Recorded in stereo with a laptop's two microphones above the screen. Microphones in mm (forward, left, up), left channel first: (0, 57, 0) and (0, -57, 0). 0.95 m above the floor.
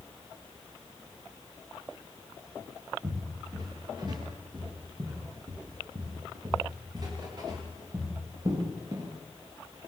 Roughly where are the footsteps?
Right.